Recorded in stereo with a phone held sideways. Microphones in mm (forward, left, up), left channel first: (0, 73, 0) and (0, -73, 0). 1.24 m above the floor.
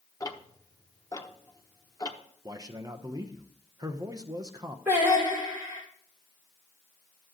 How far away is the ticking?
About 0.8 m.